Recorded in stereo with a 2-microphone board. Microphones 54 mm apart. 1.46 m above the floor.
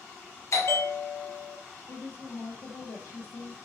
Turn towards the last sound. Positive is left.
turn(degrees=70)  # may be behind; listen again after turning